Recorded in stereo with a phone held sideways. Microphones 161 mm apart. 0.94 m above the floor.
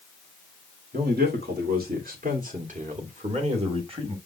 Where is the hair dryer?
I don't hear a hair dryer.